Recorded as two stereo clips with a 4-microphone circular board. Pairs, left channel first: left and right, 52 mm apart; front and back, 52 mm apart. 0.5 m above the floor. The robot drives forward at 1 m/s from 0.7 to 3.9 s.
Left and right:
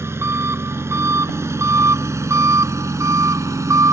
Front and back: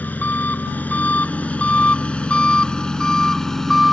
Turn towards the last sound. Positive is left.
turn(degrees=-85)